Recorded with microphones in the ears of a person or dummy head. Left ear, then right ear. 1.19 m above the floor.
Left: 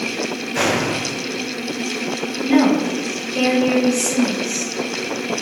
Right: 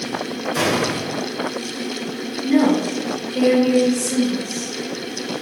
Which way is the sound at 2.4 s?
15° left (ahead or behind).